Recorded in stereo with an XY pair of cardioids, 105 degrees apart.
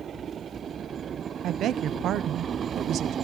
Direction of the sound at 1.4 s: 70° right.